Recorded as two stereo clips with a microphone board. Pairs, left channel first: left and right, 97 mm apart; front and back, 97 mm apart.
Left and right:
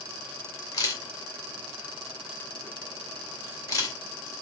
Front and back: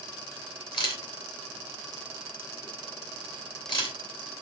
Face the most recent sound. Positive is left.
turn(degrees=35)